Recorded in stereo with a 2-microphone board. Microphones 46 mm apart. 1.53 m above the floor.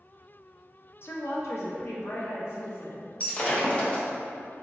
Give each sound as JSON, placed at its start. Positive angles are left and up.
{"t": 1.0, "sound": "a woman speaking", "side_deg": 60, "distance_m": 0.5}
{"t": 3.2, "sound": "breaking glass", "side_deg": 30, "distance_m": 0.9}